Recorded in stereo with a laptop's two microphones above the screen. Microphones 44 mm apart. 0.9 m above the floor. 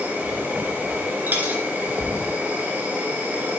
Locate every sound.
0.0 s an insect: 50° right (ahead or behind), 3 m
1.3 s a dropped coin: 45° right (ahead or behind), 2 m